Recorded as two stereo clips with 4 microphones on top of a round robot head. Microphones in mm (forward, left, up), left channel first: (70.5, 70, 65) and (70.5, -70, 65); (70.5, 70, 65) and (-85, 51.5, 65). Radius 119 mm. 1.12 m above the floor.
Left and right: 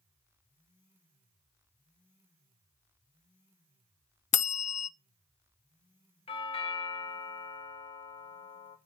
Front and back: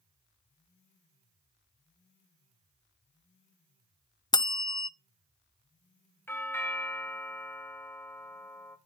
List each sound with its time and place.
4.3 s a bell: 70° left, 0.5 m
6.3 s a doorbell: 75° left, 0.9 m